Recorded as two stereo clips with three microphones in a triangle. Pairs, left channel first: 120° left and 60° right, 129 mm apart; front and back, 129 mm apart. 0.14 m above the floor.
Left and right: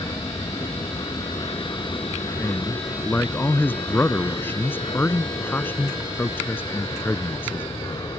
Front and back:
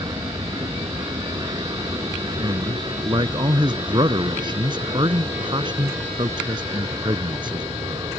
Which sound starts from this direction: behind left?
An aircraft, at 0.0 s.